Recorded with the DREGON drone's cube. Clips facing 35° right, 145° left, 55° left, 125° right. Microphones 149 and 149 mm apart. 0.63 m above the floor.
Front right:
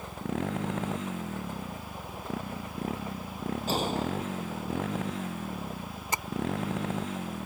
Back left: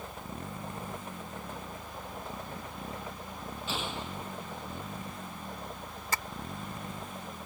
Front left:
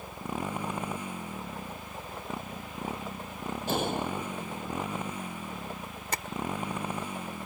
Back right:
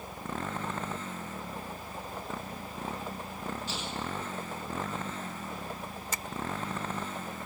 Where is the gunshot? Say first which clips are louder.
Front right 8 dB, front left 7 dB; 20° left.